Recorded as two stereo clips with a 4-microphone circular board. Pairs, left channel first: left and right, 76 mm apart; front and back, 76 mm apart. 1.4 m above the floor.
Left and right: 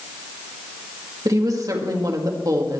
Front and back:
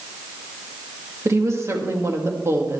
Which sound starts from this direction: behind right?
A woman speaking, at 1.2 s.